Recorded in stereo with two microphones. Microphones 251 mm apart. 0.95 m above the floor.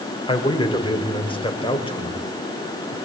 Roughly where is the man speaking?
Centre.